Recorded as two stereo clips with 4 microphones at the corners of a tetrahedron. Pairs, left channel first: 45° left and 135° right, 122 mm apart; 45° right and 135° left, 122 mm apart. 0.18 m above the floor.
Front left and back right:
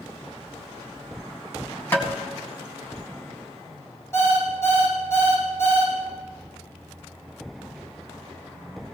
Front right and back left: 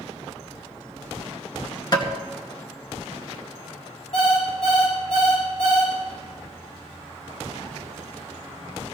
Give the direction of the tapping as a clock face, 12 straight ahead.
1 o'clock.